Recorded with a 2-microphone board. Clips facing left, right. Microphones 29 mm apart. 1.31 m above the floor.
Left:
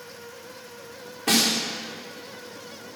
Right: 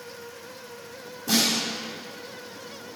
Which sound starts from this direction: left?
A snare drum, at 1.3 s.